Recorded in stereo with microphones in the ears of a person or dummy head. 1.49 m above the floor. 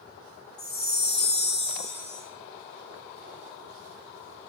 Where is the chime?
Centre (ahead or behind), 0.9 m.